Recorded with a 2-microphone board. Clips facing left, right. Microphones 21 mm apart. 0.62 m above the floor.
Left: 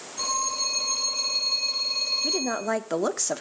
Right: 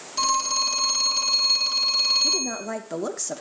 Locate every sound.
0.2 s a phone ringing: 80° right, 4 m
2.2 s a woman speaking: 25° left (ahead or behind), 0.9 m